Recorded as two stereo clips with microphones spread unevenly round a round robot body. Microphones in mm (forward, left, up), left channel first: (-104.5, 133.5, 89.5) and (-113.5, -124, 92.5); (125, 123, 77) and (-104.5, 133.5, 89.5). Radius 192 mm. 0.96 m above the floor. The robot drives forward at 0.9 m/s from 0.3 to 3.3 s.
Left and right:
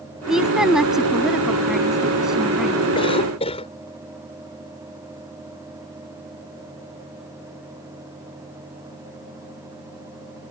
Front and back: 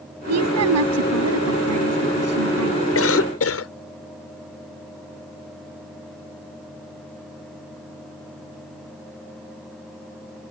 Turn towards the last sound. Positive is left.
turn(degrees=15)